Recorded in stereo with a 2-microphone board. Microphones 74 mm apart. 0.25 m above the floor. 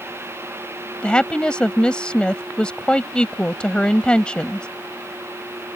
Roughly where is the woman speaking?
Centre.